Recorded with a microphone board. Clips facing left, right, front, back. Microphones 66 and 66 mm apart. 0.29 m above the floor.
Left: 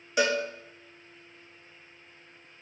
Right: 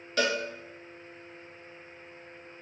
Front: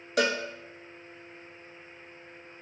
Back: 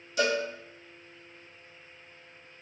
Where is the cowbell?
15° left, 0.6 m.